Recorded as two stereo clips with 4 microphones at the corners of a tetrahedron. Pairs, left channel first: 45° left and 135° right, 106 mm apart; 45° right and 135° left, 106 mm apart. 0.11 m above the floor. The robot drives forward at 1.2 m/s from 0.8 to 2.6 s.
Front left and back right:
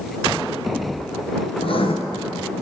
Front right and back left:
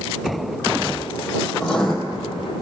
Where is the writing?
35° left, 2.5 m; by 1.9 s 45° left, 2.5 m.